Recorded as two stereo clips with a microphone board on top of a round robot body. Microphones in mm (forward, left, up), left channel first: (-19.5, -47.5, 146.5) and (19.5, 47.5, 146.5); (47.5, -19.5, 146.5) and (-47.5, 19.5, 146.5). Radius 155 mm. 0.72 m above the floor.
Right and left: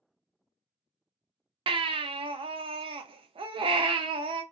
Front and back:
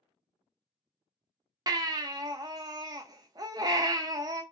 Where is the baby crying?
105° left, 0.6 m.